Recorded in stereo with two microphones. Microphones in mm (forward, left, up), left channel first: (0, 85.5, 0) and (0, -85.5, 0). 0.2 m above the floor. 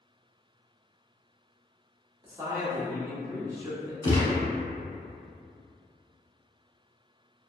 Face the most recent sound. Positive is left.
turn(degrees=25)  # may be behind; listen again after turning